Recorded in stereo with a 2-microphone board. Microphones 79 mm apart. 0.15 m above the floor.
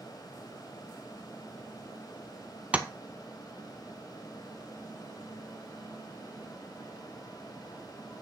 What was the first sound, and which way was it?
Tapping, 15° right (ahead or behind).